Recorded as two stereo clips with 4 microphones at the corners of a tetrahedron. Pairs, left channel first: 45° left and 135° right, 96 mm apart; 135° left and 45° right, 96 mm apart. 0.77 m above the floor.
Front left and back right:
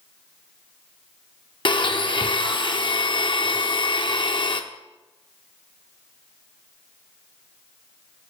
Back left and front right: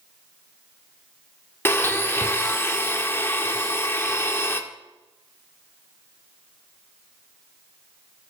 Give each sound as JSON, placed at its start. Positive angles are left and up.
{"t": 1.6, "sound": "a blender", "azimuth_deg": 70, "distance_m": 0.6}